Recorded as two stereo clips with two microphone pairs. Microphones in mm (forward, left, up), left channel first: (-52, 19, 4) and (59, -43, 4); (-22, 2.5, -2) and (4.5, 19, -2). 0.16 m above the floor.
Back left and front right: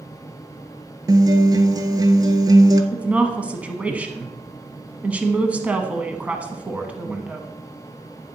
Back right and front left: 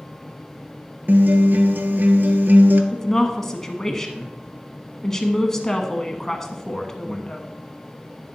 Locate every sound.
1.1 s a guitar: 30° left, 0.8 m
2.9 s a woman speaking: 95° right, 1.0 m